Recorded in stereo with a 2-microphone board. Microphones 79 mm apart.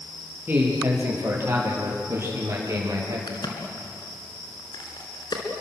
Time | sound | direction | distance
0.5 | a man speaking | 25° right (ahead or behind) | 6.5 m
3.3 | a crack | 65° left (ahead or behind) | 3.5 m